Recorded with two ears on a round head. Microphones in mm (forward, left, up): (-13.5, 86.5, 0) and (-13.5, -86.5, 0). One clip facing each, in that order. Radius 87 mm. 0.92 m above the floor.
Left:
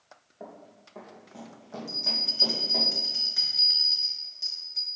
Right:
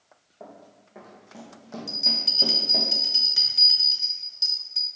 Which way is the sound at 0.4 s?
5° left (ahead or behind).